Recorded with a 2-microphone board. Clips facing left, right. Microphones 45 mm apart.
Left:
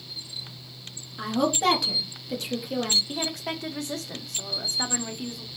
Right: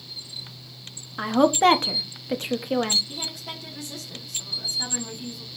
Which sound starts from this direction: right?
A woman speaking, at 1.2 s.